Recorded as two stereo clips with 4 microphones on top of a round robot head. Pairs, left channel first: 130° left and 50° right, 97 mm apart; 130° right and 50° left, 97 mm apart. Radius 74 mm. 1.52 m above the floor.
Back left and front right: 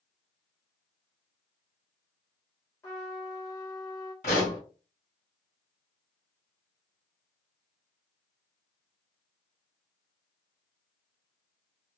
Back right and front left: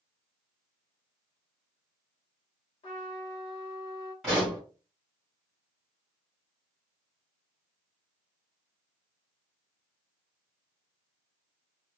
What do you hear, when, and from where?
2.8 s a trumpet: 170° right, 1.1 m
4.2 s a pop: 135° left, 1.8 m